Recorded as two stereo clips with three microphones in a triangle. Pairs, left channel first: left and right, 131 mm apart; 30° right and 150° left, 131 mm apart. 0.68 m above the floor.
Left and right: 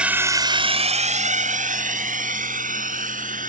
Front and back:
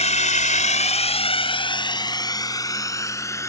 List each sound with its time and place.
0.0 s a drone: 10° right; by 3.5 s 100° right